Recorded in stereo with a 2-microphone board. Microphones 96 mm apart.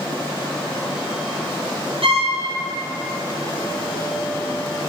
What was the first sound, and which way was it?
A violin, 75° right (ahead or behind).